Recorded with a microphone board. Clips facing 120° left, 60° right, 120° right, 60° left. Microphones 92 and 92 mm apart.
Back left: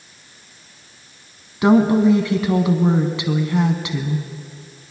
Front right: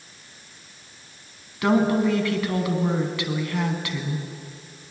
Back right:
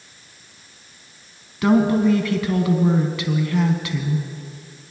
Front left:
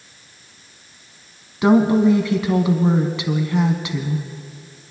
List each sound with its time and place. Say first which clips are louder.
1.6 s a woman speaking: back left 6 dB, front left 2 dB; 95° left, 1.1 m